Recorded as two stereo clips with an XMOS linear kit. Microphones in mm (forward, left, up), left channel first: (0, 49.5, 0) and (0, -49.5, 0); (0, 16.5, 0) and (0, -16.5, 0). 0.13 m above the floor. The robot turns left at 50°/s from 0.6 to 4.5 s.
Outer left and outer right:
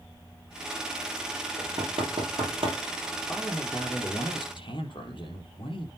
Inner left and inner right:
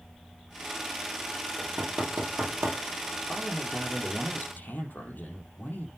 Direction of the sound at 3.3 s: Straight behind.